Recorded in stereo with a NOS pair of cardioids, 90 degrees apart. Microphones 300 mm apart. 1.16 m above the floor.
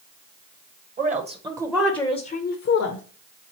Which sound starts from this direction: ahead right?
A woman speaking, at 1.0 s.